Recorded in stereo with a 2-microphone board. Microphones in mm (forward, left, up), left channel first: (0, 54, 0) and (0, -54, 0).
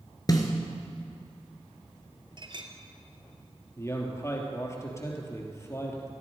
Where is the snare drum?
35° left (ahead or behind), 2 m.